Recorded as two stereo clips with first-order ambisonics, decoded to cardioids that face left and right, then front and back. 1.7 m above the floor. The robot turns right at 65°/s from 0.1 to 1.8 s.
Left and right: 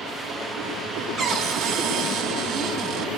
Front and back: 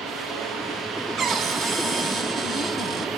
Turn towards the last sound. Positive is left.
turn(degrees=-105)